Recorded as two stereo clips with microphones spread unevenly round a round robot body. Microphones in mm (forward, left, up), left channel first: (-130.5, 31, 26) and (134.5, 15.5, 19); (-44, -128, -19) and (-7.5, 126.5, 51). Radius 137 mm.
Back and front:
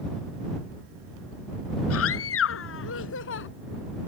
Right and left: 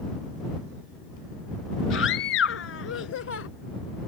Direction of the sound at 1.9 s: 140° right.